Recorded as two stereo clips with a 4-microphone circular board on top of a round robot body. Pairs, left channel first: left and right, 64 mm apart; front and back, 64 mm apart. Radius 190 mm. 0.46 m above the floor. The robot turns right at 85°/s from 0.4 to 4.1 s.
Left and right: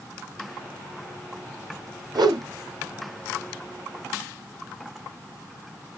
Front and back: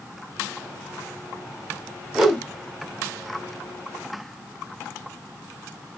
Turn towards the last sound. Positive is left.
turn(degrees=70)